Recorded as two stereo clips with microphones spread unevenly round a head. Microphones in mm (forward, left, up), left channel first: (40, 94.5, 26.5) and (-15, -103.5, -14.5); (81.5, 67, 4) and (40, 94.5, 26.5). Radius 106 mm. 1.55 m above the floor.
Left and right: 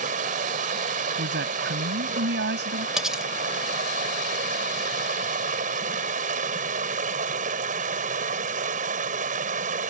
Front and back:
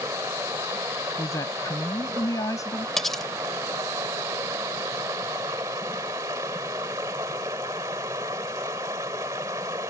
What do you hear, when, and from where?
0.0 s running water: 165° right
1.2 s a woman speaking: 65° right
3.0 s cutlery clinking: 140° left